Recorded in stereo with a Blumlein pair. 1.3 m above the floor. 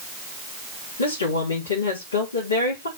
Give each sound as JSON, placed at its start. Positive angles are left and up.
{"t": 1.0, "sound": "a woman speaking", "azimuth_deg": 70, "distance_m": 4.0}